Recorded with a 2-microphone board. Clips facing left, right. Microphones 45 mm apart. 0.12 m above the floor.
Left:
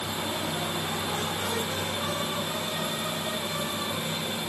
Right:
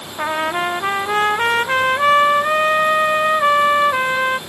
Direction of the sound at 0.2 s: 75° right (ahead or behind).